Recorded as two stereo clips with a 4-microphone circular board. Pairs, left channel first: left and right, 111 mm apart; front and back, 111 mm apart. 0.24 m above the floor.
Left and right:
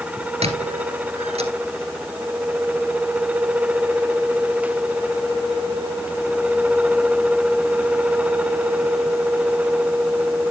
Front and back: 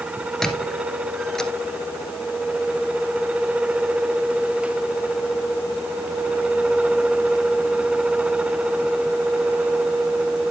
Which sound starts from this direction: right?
A squeak, at 0.4 s.